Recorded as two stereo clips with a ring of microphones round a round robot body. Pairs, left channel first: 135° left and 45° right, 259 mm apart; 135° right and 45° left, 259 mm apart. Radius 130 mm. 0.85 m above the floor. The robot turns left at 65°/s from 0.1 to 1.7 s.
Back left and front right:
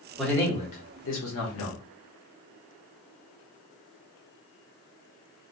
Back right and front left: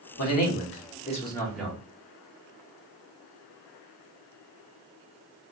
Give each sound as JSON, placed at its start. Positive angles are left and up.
{"t": 0.2, "sound": "a man speaking", "azimuth_deg": -135, "distance_m": 1.0}